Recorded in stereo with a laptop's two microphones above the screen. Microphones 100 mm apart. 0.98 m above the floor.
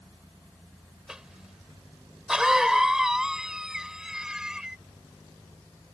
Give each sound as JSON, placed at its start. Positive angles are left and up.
{"t": 1.1, "sound": "a cough", "side_deg": -5}